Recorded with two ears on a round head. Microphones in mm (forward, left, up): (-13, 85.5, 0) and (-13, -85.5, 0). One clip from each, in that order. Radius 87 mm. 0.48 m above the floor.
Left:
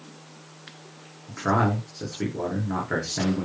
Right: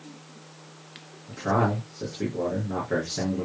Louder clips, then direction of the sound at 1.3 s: Left 1 dB; 45° left (ahead or behind).